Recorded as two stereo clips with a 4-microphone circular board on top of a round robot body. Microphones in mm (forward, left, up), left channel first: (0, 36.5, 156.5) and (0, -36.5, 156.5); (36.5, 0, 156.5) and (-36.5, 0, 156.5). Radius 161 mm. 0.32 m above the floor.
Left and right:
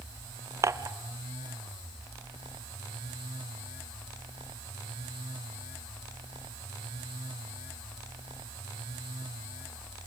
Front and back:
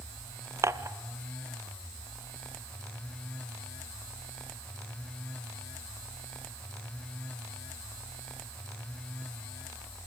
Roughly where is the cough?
I don't hear a cough.